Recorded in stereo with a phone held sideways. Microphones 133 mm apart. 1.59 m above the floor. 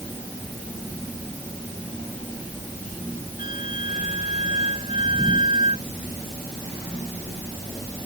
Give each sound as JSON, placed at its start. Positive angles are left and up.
{"t": 3.4, "sound": "a flute", "side_deg": 80}